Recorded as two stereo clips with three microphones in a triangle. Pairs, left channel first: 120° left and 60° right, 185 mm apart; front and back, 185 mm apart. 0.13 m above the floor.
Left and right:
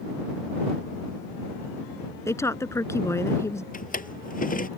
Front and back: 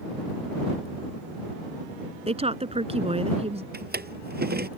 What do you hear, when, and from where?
2.3 s a woman speaking: straight behind
3.7 s a drawer: 155° left